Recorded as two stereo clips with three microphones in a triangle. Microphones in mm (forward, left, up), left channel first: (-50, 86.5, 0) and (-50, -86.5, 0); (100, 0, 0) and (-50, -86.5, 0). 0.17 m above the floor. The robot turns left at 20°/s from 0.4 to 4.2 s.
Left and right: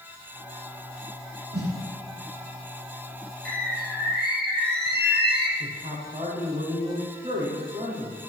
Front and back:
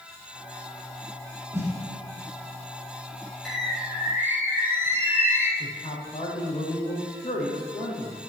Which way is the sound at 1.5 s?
70° right.